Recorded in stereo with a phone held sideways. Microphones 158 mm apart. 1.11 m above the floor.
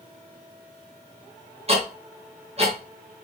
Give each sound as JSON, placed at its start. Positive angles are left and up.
{"t": 1.7, "sound": "ticking", "side_deg": -40, "distance_m": 3.0}